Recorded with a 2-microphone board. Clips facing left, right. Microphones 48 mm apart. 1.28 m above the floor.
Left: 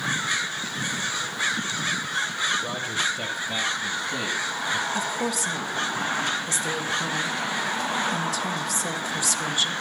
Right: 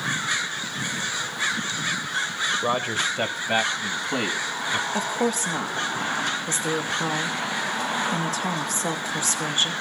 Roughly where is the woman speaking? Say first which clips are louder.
Right 2 dB; right.